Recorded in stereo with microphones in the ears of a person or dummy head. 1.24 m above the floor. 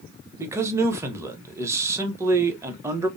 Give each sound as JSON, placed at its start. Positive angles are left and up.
{"t": 0.4, "sound": "a man speaking", "side_deg": -10, "distance_m": 0.7}